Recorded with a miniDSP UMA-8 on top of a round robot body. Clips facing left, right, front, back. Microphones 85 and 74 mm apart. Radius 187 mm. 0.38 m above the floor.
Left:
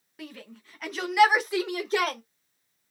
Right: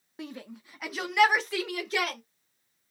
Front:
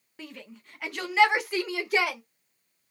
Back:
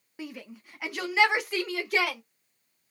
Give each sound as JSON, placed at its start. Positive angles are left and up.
{"t": 0.2, "sound": "a shout", "azimuth_deg": -115, "distance_m": 1.5}